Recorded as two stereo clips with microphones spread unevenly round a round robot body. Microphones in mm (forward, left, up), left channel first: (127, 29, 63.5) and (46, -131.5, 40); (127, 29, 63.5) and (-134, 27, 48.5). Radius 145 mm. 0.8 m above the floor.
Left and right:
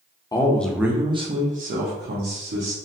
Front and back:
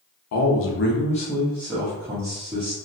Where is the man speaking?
10° right, 0.7 m; by 2.8 s 110° right, 1.3 m.